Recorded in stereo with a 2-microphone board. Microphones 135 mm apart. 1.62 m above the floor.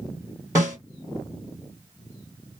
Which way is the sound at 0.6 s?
25° right (ahead or behind).